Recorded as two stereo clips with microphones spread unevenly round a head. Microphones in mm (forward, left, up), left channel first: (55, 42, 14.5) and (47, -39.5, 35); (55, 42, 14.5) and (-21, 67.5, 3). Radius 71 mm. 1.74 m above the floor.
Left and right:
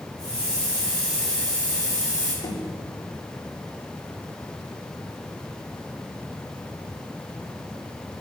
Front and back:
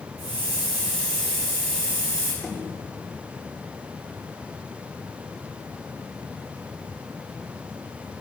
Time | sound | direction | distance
0.2 | a hiss | straight behind | 3.5 m
2.4 | knocking | 65° left | 3.5 m